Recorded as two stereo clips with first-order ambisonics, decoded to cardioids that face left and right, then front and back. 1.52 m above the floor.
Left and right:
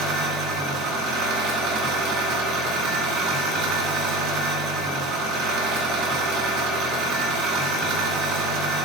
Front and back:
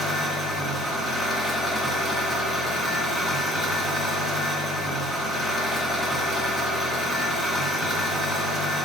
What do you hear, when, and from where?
0.0 s an engine running: 80° right, 2.0 m